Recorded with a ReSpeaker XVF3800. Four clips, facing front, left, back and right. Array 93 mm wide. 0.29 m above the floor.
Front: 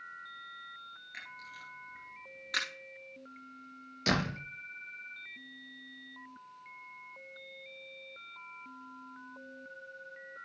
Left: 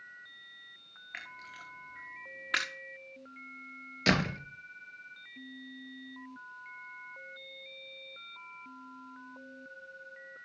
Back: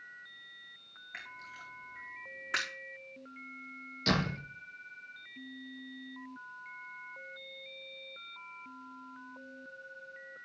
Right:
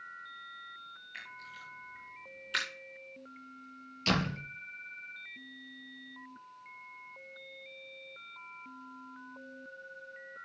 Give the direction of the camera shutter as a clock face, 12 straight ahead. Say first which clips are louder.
Left 3 dB, back 3 dB; 8 o'clock.